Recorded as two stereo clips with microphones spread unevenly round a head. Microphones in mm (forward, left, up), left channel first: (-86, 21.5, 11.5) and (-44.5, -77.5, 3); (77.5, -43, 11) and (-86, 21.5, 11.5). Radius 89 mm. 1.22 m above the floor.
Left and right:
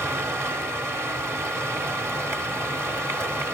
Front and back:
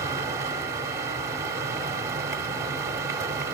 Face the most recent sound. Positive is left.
turn(degrees=-135)